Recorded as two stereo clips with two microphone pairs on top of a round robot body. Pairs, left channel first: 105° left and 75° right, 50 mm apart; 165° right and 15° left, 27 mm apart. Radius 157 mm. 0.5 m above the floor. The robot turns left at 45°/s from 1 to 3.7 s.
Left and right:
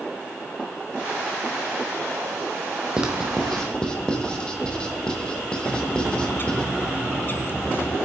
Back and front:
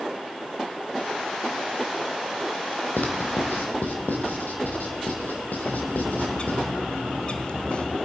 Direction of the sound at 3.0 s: 150° right.